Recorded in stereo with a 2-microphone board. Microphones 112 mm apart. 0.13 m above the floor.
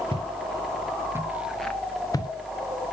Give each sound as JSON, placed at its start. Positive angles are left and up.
{"t": 0.1, "sound": "footsteps", "side_deg": -50, "distance_m": 2.0}